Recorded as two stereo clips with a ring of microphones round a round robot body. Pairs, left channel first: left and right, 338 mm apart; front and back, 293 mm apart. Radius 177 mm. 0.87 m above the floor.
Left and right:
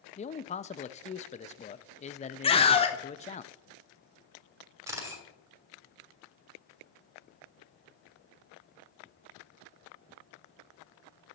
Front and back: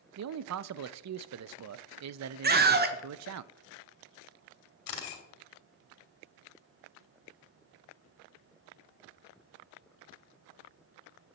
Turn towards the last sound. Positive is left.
turn(degrees=-10)